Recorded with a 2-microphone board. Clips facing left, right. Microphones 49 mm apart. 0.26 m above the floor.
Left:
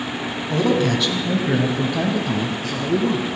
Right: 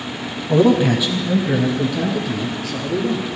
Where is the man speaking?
25° right (ahead or behind), 1.6 m; by 3.3 s 55° left (ahead or behind), 2.5 m.